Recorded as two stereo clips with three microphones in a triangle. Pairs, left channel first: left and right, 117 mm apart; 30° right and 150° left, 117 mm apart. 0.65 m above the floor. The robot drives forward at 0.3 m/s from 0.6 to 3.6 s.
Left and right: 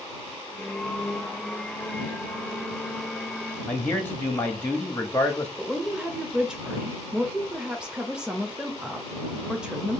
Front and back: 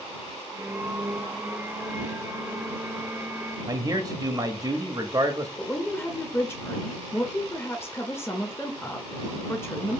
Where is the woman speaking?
20° right, 0.5 m.